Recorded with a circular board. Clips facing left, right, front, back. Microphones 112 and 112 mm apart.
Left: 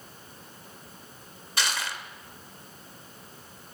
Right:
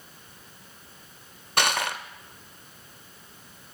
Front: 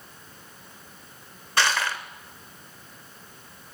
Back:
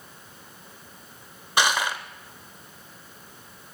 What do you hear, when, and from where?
1.6 s crushing: 110° right, 0.5 m